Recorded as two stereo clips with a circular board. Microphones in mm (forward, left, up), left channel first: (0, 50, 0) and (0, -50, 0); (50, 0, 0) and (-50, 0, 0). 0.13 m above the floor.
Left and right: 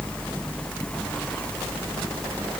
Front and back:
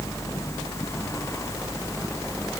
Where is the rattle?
I don't hear a rattle.